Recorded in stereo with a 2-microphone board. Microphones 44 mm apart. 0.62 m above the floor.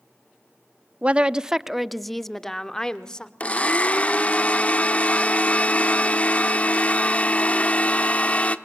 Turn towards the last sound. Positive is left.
turn(degrees=35)  # may be behind; listen again after turning